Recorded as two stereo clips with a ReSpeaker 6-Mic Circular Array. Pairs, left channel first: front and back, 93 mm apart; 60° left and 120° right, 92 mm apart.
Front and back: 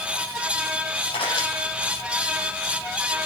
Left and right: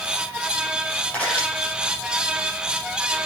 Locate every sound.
1.1 s a camera shutter: 15° right, 5.5 m